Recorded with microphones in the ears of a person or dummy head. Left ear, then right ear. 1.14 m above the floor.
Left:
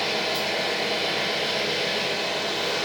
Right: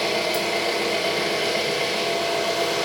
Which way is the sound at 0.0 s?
60° right (ahead or behind).